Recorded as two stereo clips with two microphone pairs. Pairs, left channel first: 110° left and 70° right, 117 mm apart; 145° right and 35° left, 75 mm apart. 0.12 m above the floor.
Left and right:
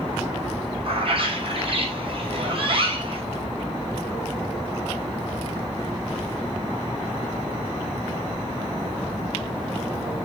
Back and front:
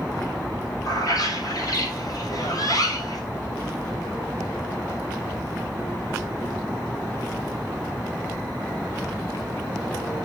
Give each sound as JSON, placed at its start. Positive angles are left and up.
{"t": 0.8, "sound": "a bird", "azimuth_deg": -110, "distance_m": 2.5}